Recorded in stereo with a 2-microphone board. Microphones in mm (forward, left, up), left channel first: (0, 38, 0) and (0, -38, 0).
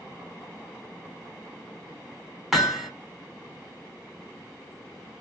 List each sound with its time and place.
2.5 s hammering: 5° right (ahead or behind), 0.7 m